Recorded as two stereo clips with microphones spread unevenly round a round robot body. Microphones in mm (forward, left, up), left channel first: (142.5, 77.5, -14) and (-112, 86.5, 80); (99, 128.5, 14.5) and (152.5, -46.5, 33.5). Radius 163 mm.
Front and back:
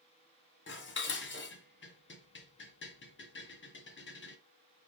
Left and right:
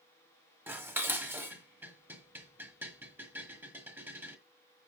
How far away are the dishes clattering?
About 1.6 m.